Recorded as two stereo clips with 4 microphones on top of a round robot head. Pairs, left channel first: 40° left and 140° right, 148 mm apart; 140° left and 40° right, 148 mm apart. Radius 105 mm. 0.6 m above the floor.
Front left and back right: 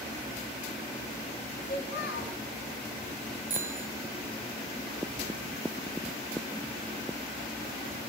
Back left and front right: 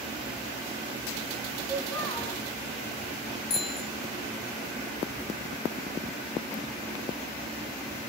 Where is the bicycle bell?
140° left, 2 m.